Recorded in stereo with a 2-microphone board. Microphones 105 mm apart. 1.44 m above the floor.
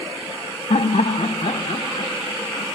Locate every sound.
0.7 s laughter: 80° left, 1.0 m; by 2.7 s 70° left (ahead or behind), 2 m